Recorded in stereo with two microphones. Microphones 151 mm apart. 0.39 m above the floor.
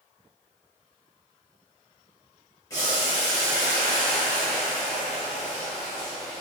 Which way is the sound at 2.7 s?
25° left (ahead or behind).